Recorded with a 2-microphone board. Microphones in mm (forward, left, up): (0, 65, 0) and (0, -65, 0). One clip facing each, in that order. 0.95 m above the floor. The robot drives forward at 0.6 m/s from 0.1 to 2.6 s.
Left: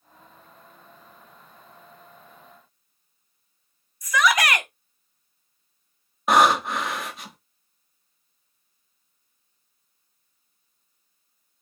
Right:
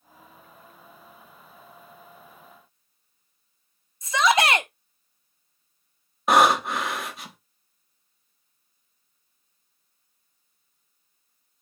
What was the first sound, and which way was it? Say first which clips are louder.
A shout: right 1 dB; 25° right (ahead or behind).